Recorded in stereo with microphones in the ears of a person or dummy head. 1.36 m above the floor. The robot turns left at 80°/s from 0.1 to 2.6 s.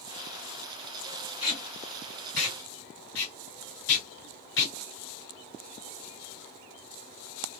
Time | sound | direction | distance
1.4 | tape being pulled | 5° right (ahead or behind) | 2.5 m